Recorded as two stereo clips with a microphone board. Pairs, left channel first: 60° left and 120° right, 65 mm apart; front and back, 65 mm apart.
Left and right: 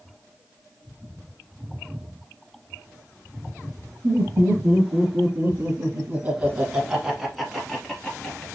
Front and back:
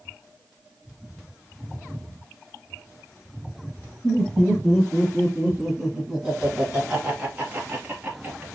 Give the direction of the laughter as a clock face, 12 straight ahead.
3 o'clock.